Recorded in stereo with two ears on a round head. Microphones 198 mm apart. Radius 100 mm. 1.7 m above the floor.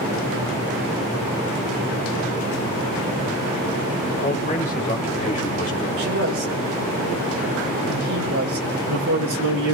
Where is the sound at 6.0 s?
65° right (ahead or behind), 6 m.